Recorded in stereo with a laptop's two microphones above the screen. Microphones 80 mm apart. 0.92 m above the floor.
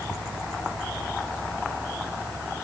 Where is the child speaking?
I don't hear a child speaking.